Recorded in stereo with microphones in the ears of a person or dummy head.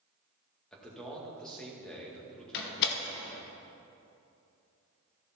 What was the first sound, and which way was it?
A man speaking, 5° left (ahead or behind).